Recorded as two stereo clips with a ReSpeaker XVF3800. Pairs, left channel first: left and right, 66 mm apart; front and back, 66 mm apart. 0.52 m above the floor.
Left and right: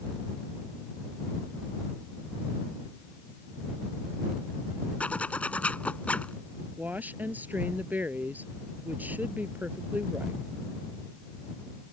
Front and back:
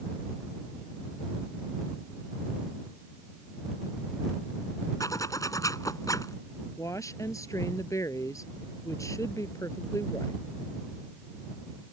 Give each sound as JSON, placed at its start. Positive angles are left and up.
{"t": 5.0, "sound": "a zipper", "azimuth_deg": 20}
{"t": 6.8, "sound": "a woman speaking", "azimuth_deg": -30}